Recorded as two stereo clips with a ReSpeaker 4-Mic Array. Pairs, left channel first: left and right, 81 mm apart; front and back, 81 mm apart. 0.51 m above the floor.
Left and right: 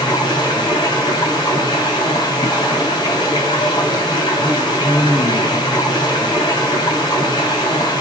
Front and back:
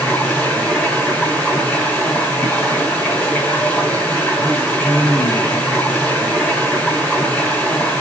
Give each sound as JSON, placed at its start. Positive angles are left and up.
{"t": 0.0, "sound": "running water", "azimuth_deg": 65, "distance_m": 5.0}